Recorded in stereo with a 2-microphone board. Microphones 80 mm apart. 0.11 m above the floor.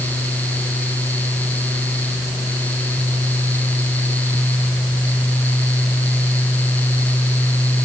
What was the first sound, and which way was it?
Only background noise.